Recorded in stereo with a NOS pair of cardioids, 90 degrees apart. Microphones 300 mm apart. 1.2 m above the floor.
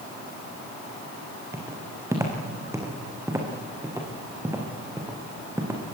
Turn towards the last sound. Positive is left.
turn(degrees=-10)